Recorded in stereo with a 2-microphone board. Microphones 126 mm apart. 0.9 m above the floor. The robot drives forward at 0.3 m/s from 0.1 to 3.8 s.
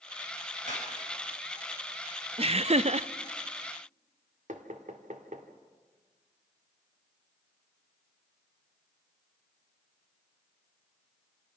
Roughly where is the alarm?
I don't hear an alarm.